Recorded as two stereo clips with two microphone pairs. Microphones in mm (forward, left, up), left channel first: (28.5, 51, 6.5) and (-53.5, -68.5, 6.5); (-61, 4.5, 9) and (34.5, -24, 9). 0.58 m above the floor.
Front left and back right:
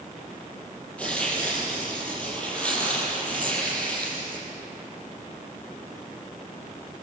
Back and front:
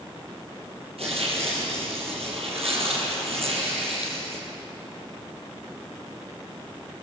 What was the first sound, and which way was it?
Tearing paper, 25° right.